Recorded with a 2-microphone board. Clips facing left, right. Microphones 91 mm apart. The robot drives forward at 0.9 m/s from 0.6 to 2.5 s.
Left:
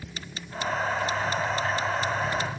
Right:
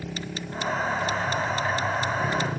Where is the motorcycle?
70° right (ahead or behind); by 2.6 s 55° right (ahead or behind).